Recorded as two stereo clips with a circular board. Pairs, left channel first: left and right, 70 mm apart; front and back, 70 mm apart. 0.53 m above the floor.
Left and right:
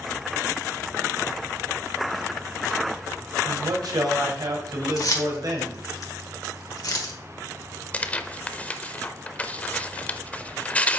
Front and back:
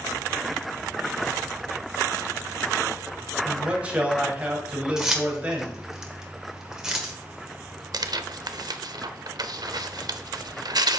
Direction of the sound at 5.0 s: 100° left.